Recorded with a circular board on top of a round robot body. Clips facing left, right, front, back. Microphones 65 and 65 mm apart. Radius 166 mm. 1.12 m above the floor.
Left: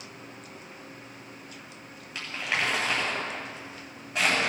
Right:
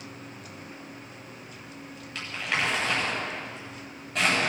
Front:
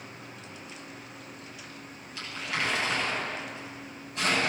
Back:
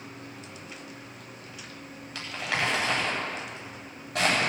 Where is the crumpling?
170° left, 9 m.